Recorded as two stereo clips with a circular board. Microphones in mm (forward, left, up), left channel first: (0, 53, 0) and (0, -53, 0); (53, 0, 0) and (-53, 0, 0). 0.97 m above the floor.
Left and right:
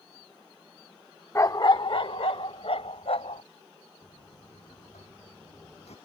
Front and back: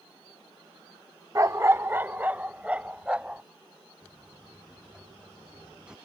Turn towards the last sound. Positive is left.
turn(degrees=100)